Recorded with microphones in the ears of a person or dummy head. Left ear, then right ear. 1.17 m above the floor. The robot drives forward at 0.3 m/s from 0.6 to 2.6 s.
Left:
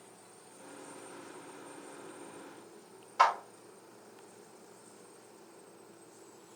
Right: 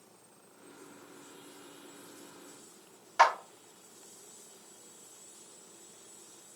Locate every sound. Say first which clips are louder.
3.2 s a clap: right 2 dB; 55° right (ahead or behind), 1.9 m